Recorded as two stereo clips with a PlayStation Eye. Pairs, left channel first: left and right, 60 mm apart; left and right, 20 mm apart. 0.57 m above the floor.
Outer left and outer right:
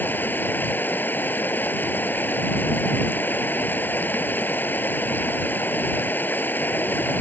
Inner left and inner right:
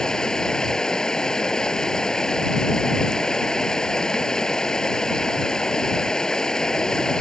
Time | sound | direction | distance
0.0 | running water | 30° left (ahead or behind) | ?